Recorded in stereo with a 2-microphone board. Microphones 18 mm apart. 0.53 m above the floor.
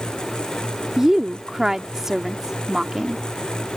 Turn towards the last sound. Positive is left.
turn(degrees=-30)  # may be behind; listen again after turning